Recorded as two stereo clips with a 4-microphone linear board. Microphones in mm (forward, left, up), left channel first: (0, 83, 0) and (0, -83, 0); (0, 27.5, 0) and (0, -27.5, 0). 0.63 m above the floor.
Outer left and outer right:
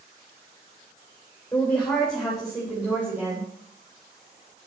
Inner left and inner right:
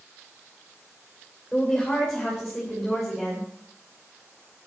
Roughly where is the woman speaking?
Centre.